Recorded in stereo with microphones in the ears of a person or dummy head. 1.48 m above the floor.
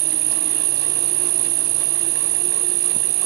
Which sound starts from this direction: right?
An insect, at 0.0 s.